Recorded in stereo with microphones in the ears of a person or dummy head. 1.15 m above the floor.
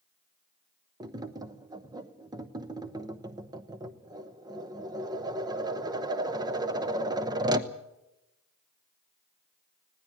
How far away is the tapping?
About 0.8 m.